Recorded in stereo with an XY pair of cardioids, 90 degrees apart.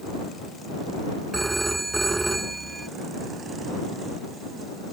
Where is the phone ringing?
20° right.